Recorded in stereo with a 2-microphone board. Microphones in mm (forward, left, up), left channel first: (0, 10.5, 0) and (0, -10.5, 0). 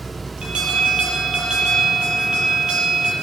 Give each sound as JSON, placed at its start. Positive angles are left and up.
{"t": 0.4, "sound": "an alarm", "side_deg": -65, "distance_m": 6.5}